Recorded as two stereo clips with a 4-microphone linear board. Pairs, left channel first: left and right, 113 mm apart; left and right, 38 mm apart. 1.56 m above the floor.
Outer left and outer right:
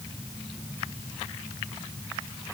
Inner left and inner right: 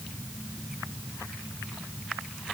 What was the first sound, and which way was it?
Only background noise.